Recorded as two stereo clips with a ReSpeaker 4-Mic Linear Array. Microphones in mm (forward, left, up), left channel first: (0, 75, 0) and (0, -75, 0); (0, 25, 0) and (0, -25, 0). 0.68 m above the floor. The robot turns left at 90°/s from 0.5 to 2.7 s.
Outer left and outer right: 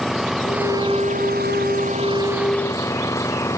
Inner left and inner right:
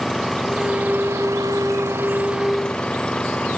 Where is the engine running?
Straight ahead; by 3.6 s 160° left.